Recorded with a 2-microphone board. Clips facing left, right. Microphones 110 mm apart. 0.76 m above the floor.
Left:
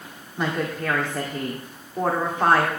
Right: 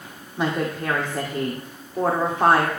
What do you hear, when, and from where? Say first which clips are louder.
0.4 s a woman speaking: right 2 dB; 10° right (ahead or behind), 1.9 m